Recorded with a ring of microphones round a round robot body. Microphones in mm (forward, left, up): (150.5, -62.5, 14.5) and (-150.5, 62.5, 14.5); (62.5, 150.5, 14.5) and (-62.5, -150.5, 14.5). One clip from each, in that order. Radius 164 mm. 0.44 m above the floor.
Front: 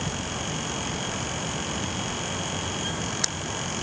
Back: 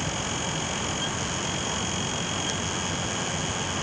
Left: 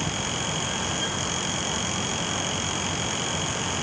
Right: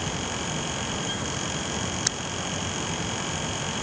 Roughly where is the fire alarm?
No fire alarm in this recording.